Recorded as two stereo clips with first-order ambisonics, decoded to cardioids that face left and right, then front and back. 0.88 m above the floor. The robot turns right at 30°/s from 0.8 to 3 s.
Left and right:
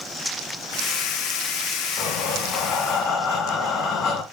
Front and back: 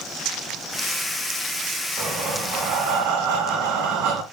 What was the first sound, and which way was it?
Breathing, 120° left.